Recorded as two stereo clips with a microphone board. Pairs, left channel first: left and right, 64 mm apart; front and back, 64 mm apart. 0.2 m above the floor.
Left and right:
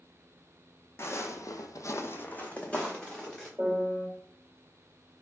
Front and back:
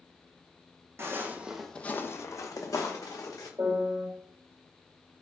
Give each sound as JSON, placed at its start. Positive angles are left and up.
{"t": 1.0, "sound": "footsteps", "azimuth_deg": 135, "distance_m": 0.7}
{"t": 3.6, "sound": "a piano", "azimuth_deg": -155, "distance_m": 1.9}